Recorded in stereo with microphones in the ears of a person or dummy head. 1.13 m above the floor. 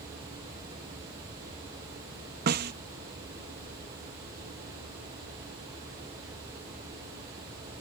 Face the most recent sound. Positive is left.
turn(degrees=-55)  # may be behind; listen again after turning